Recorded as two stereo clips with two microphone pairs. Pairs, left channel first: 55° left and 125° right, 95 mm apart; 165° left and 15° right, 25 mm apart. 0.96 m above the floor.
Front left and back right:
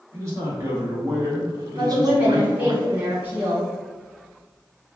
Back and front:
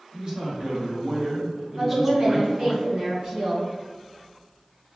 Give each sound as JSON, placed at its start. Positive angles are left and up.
{"t": 0.1, "sound": "a man speaking", "azimuth_deg": -65, "distance_m": 1.7}
{"t": 1.8, "sound": "a woman speaking", "azimuth_deg": -55, "distance_m": 1.9}